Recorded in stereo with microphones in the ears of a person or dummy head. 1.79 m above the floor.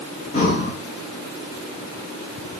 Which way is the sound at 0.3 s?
40° left (ahead or behind).